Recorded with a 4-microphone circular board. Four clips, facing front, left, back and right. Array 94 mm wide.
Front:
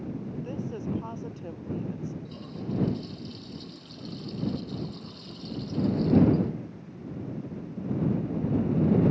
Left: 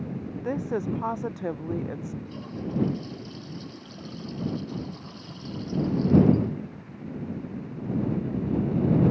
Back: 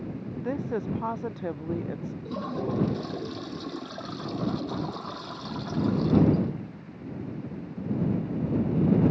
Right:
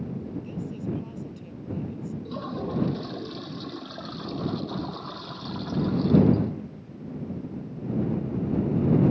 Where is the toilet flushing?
150° right.